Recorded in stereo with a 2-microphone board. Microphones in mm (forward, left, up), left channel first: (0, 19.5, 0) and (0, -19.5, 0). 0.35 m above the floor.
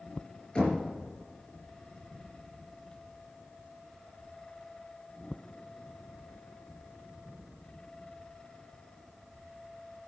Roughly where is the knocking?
Left.